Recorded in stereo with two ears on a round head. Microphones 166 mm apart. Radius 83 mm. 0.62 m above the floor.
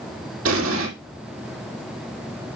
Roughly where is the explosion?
Right.